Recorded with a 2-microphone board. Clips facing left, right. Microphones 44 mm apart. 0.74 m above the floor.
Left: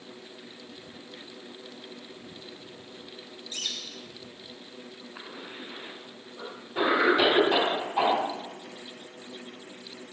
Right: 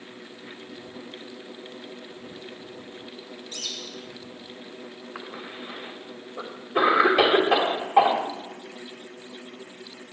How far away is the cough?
About 3 m.